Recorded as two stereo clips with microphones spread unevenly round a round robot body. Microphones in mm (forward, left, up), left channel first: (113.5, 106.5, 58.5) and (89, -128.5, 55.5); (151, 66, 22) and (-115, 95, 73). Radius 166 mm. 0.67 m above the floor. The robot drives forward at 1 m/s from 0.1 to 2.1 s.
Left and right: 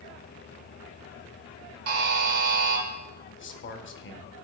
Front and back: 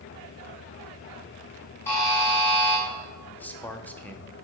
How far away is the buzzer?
About 1.2 m.